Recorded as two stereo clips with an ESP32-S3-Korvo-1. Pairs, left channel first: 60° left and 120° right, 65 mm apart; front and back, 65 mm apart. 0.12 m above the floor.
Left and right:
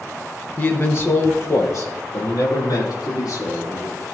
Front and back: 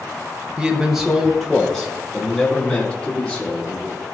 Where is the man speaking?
105° left, 1.6 m; by 3.9 s 70° left, 5 m.